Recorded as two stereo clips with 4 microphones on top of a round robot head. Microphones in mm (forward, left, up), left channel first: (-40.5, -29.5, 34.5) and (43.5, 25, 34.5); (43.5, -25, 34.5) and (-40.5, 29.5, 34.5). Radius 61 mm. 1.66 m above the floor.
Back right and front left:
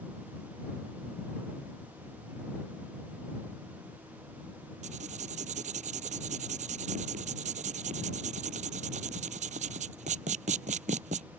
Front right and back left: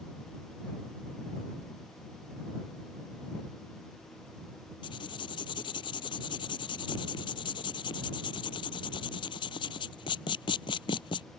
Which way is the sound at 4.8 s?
15° left.